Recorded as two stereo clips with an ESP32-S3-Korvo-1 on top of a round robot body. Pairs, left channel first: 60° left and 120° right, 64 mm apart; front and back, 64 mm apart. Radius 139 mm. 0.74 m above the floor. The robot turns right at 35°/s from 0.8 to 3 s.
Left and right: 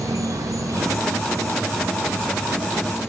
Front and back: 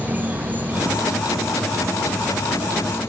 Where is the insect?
120° right, 0.9 m; by 3.1 s 45° right, 0.9 m.